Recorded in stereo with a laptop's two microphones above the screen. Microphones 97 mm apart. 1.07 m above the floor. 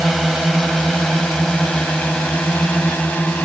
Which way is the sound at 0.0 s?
Centre (ahead or behind).